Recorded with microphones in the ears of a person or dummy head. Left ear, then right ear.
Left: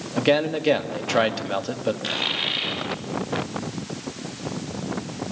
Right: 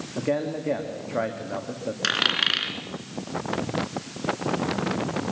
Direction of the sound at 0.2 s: 80° left.